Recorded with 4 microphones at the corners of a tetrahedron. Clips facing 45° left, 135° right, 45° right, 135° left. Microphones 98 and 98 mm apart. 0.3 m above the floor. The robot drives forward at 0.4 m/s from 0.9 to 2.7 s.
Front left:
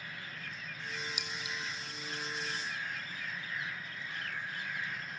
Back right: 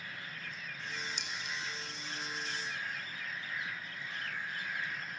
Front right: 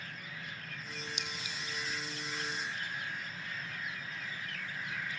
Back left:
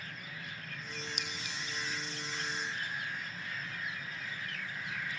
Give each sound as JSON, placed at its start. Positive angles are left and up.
{"t": 1.2, "sound": "a clink", "azimuth_deg": 125, "distance_m": 2.0}